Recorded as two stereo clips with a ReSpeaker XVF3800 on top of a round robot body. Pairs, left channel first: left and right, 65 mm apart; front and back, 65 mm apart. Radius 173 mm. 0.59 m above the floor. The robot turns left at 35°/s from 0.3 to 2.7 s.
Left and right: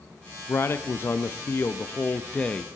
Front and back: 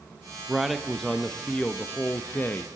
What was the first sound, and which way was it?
A man speaking, 100° left.